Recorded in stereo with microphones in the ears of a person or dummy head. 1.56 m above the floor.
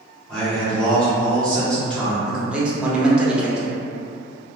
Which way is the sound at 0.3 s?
5° left (ahead or behind).